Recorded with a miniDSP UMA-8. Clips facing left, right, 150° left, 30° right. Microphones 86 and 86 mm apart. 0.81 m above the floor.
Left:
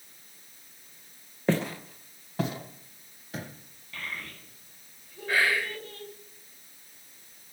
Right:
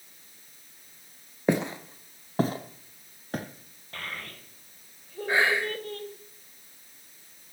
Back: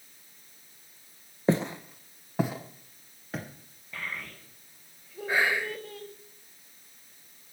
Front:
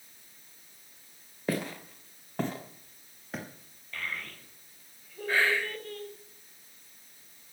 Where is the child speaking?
130° right, 2.5 m.